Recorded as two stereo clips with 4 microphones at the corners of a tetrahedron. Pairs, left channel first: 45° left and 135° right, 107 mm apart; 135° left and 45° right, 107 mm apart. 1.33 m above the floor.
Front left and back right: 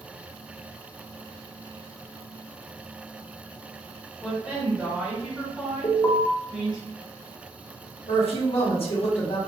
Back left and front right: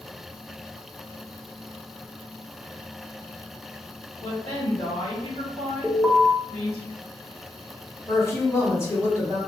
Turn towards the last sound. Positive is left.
turn(degrees=70)